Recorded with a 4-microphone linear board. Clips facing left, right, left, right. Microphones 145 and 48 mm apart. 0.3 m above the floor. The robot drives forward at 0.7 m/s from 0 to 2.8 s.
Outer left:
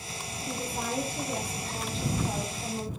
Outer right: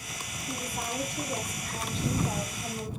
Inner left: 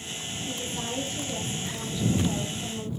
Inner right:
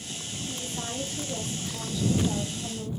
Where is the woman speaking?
35° left (ahead or behind), 7.5 m; by 2.9 s 30° left (ahead or behind), 9 m.